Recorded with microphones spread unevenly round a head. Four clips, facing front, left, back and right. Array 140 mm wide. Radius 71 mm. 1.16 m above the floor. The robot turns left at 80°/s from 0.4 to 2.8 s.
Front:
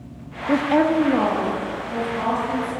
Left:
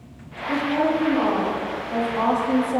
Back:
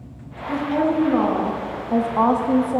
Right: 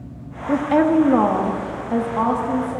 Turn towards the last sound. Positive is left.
turn(degrees=145)